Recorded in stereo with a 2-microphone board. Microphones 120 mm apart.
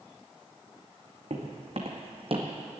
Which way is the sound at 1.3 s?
55° right (ahead or behind).